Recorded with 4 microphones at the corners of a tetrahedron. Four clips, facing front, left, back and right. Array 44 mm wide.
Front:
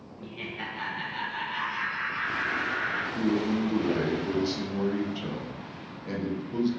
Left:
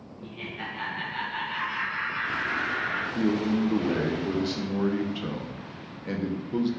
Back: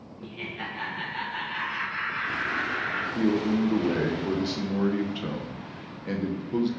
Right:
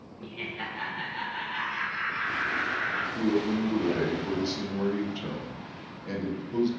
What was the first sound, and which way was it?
Laughter, 75° right.